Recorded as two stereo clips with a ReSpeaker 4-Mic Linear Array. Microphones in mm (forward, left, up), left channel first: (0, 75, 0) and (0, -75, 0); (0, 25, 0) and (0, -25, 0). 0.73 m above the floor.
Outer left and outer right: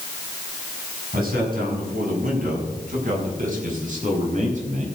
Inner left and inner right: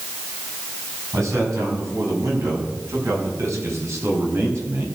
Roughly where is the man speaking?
Right.